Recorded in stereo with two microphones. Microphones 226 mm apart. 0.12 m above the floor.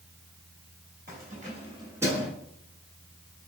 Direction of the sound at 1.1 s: 40° right (ahead or behind).